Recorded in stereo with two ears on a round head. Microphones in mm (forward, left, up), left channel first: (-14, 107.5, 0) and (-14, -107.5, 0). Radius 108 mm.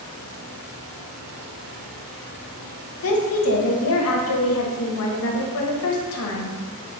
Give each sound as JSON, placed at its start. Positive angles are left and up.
{"t": 3.0, "sound": "a woman speaking", "side_deg": 65, "distance_m": 0.8}